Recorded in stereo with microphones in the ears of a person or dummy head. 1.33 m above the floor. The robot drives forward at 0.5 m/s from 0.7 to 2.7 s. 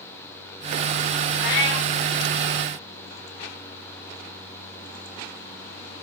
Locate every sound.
1.4 s a cat meowing: 75° left (ahead or behind), 5.5 m